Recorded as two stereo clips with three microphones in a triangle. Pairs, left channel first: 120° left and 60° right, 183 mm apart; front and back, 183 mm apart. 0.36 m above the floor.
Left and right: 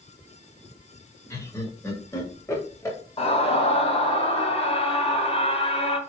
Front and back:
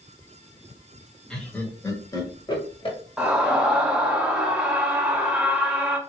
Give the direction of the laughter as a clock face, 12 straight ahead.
9 o'clock.